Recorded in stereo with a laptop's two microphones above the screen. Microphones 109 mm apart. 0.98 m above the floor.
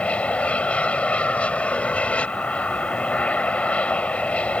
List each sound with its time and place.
0.0 s an aircraft: 10° left (ahead or behind)